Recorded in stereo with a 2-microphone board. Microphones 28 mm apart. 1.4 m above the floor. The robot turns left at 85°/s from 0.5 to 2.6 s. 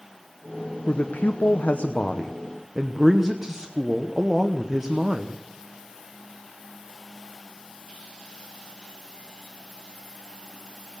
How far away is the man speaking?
About 0.9 m.